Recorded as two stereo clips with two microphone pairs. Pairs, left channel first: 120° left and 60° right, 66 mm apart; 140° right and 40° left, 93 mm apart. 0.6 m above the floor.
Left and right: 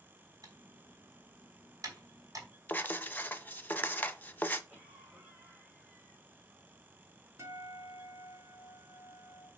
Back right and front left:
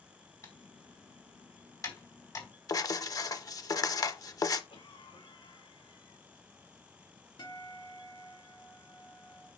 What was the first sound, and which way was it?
Typing on a keyboard, 85° right.